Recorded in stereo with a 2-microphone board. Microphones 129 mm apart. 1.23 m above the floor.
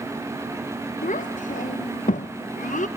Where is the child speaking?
80° left, 0.6 m.